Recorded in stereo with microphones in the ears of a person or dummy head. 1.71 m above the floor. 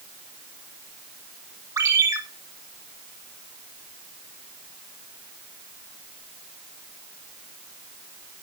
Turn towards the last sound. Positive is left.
turn(degrees=-15)  # may be behind; listen again after turning